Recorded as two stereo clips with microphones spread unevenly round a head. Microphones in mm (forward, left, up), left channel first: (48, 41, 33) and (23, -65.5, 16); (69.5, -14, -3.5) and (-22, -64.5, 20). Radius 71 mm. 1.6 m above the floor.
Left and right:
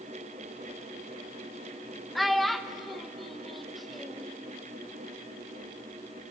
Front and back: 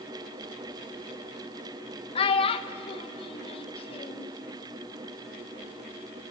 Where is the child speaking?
5° right, 1.0 m.